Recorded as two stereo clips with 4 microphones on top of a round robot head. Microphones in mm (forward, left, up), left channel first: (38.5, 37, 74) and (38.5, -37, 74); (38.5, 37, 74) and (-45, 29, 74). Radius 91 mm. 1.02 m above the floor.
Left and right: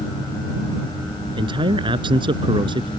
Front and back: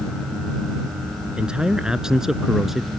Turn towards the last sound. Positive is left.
turn(degrees=-85)